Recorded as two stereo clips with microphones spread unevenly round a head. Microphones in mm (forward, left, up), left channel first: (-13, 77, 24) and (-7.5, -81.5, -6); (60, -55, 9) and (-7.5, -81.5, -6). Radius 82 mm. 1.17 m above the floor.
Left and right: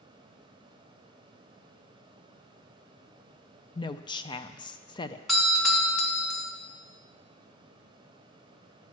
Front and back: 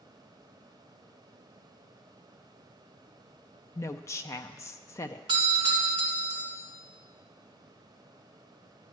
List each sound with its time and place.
3.8 s a woman speaking: 40° left, 0.5 m
5.3 s a doorbell: 175° right, 1.8 m